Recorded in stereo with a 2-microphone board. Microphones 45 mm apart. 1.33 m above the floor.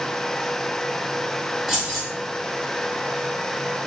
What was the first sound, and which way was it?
Keys jangling, 5° right (ahead or behind).